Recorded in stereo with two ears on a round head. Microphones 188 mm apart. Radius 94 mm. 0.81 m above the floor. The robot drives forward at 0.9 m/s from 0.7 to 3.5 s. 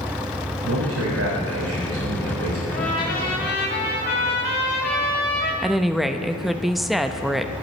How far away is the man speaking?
About 4 m.